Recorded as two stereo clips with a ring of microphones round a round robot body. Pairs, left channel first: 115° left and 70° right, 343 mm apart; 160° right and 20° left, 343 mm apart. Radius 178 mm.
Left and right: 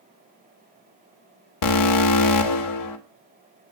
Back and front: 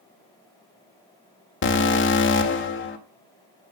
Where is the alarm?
145° left, 2 m.